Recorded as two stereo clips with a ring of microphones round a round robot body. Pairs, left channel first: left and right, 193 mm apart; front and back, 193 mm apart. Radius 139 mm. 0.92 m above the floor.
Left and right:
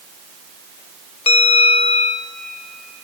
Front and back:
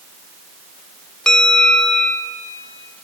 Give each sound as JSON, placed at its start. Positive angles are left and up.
{"t": 1.3, "sound": "a bell", "azimuth_deg": 80, "distance_m": 0.5}